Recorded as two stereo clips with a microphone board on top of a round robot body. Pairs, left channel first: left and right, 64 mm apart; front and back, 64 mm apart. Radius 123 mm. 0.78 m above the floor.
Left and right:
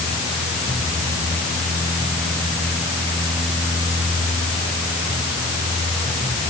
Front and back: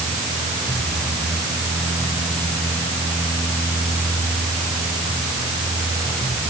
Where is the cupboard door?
No cupboard door in this recording.